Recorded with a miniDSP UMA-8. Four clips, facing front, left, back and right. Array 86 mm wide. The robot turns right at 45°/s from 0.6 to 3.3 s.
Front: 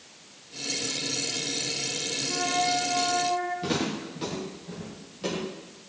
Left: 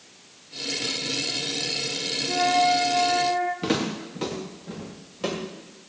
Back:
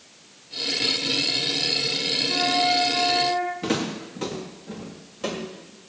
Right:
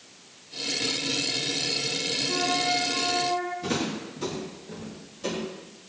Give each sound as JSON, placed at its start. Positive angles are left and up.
{"t": 2.3, "sound": "a flute", "azimuth_deg": 95, "distance_m": 5.0}
{"t": 3.6, "sound": "footsteps", "azimuth_deg": 110, "distance_m": 7.0}